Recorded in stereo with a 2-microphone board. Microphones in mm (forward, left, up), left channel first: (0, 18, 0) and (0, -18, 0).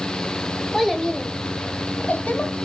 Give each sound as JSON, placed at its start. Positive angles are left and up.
{"t": 0.7, "sound": "a child speaking", "side_deg": 5, "distance_m": 0.9}